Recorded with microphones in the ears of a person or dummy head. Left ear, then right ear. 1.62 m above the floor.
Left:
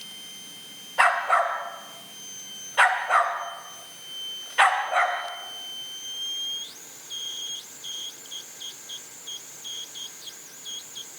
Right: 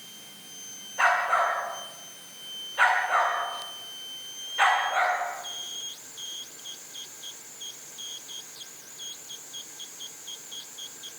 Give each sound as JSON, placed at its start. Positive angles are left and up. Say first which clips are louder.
{"t": 1.0, "sound": "a dog barking", "louder": "left 2 dB", "side_deg": 35, "distance_m": 3.0}